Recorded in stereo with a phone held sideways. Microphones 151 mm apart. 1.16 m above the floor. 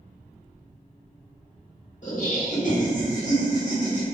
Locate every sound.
2.0 s laughter: 55° left (ahead or behind), 1.1 m